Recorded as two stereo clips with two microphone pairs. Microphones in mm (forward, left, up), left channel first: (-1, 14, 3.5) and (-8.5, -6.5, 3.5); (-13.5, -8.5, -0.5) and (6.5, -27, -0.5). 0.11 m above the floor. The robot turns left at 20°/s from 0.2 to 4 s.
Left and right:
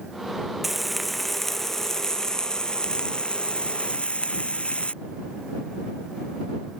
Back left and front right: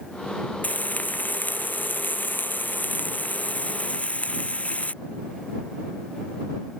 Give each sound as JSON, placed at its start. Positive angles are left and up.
{"t": 0.6, "sound": "frying", "azimuth_deg": 165}